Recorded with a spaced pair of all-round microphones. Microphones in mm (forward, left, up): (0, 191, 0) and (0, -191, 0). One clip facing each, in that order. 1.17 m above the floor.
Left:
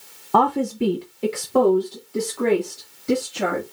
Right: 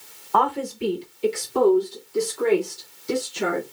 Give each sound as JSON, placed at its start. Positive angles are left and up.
{"t": 0.3, "sound": "a woman speaking", "side_deg": 55, "distance_m": 0.6}